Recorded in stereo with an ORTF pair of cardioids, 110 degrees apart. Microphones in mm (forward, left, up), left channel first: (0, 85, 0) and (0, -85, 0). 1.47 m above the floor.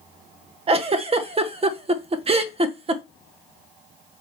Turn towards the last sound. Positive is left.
turn(degrees=-35)